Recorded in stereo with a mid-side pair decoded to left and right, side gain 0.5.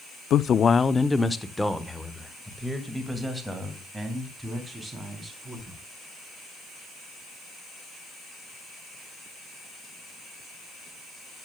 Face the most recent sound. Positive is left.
turn(degrees=-10)